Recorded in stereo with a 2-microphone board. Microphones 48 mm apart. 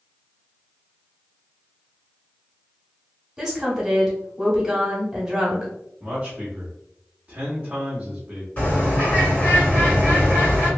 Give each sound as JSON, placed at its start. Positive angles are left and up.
{"t": 3.4, "sound": "a woman speaking", "side_deg": -15, "distance_m": 1.1}
{"t": 6.0, "sound": "a man speaking", "side_deg": -20, "distance_m": 0.8}
{"t": 8.6, "sound": "a bird", "side_deg": 35, "distance_m": 1.7}